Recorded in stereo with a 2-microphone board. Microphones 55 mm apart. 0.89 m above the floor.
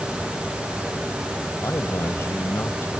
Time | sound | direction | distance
1.6 | a man speaking | 50° left (ahead or behind) | ?